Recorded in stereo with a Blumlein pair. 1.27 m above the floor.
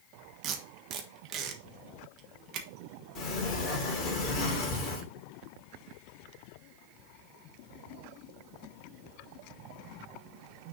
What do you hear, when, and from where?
0.4 s tape being pulled: 35° right, 1.4 m
3.1 s a sliding door: 35° left, 3.5 m